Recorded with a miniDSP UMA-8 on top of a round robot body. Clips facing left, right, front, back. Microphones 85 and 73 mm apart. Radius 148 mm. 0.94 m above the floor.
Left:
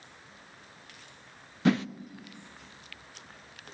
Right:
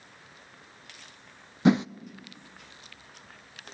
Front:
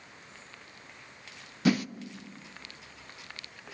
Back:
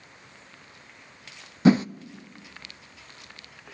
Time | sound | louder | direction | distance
1.6 | a whoosh | right 4 dB, back 7 dB | 145° right | 0.6 m